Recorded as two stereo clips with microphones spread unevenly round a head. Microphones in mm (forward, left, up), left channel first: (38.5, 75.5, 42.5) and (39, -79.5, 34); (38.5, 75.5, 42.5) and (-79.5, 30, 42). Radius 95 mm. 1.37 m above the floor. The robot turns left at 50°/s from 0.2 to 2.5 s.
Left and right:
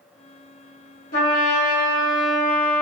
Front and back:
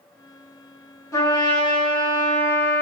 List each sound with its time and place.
1.1 s a trumpet: 80° left, 1.3 m; by 2.8 s 10° left, 1.3 m